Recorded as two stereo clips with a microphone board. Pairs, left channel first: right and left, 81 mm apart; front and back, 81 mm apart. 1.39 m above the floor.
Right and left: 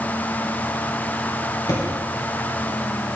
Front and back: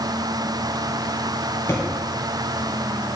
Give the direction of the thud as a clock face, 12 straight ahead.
2 o'clock.